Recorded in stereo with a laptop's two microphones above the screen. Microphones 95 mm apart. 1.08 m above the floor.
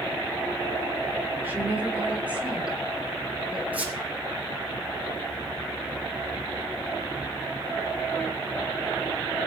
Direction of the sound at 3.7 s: 15° right (ahead or behind).